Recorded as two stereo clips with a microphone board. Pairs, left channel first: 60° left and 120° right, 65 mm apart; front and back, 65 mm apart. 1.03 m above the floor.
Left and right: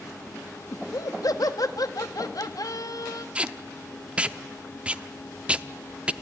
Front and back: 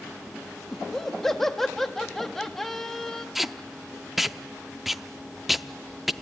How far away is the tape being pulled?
About 0.5 m.